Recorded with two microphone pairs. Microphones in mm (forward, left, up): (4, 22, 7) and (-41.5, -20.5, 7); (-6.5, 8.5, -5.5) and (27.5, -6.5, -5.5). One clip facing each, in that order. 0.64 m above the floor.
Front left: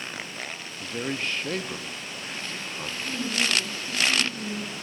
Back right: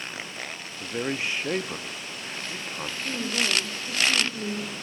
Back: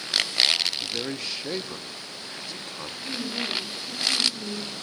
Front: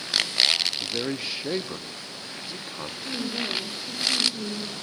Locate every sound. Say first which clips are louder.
0.8 s a man speaking: back right 2 dB, front 2 dB; 85° right, 0.7 m
3.0 s a woman speaking: even, even; 95° right, 3.5 m